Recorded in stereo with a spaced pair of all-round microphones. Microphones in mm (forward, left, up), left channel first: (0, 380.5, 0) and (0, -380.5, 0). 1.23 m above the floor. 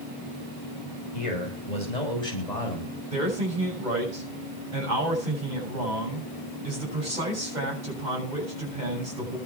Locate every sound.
1.1 s a man speaking: 60° left (ahead or behind), 8 m; by 3.0 s 55° left (ahead or behind), 7 m
3.1 s a man speaking: 75° right (ahead or behind), 7 m